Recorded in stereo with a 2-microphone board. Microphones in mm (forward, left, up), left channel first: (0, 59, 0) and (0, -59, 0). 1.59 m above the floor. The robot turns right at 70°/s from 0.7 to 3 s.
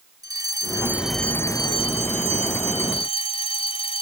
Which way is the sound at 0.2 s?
30° right.